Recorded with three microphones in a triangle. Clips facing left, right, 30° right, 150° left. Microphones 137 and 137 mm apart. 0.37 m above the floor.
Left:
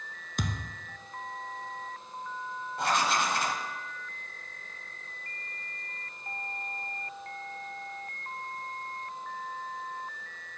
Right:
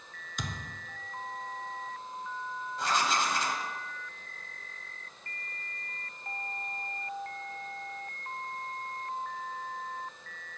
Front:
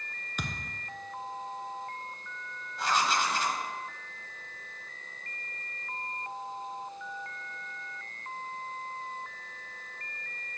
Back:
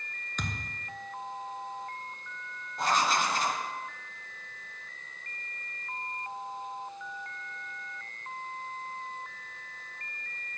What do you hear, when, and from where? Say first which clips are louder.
0.4 s a thud: left 5 dB, even; 50° left, 0.9 m
2.8 s writing: left 2 dB, back 1 dB; 115° left, 0.9 m